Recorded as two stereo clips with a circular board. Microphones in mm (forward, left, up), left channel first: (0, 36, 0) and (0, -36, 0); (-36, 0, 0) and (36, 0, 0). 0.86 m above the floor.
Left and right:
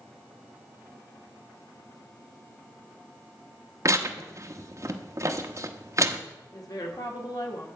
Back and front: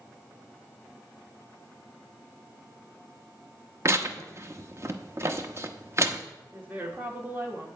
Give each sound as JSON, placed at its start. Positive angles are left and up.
{"t": 3.9, "sound": "tearing paper", "azimuth_deg": -50, "distance_m": 0.8}
{"t": 6.5, "sound": "a woman speaking", "azimuth_deg": 65, "distance_m": 2.0}